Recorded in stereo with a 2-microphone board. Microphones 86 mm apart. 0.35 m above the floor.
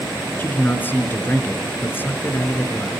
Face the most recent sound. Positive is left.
turn(degrees=25)  # may be behind; listen again after turning